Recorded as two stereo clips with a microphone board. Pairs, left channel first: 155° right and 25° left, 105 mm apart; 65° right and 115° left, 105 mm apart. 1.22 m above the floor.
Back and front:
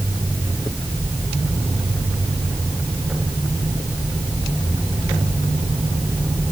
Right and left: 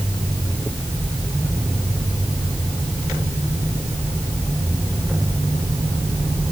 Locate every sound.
Only background noise.